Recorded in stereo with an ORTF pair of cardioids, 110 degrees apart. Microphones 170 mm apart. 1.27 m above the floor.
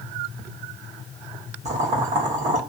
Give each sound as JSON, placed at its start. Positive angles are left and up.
{"t": 1.6, "sound": "boiling", "azimuth_deg": -40, "distance_m": 1.4}